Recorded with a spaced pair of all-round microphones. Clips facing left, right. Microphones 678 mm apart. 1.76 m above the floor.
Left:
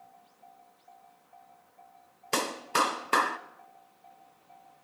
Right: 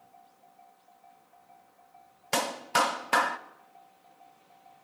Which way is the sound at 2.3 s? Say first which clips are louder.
Even; 20° right (ahead or behind).